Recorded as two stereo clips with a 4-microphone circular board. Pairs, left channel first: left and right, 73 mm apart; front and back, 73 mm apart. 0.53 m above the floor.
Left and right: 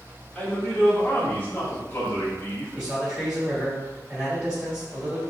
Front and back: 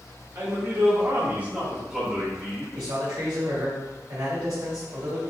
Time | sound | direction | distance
0.3 | a man speaking | 160° left | 1.6 m
2.8 | a man speaking | 175° right | 1.9 m